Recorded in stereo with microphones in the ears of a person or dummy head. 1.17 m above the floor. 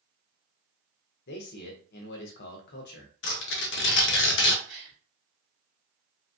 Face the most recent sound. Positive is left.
turn(degrees=-55)  # may be behind; listen again after turning